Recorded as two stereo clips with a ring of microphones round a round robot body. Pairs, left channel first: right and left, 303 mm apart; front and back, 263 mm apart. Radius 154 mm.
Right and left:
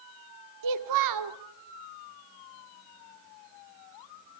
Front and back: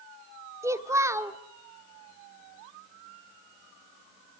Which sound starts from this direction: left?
A child speaking, at 0.6 s.